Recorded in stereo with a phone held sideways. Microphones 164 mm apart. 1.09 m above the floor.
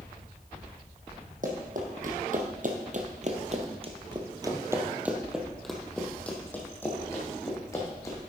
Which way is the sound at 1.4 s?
55° right (ahead or behind).